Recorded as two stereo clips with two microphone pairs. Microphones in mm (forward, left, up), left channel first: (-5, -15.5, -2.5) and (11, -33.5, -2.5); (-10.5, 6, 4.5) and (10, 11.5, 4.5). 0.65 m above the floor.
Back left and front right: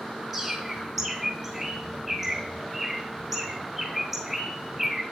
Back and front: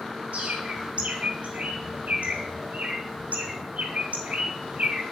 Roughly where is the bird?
Ahead left.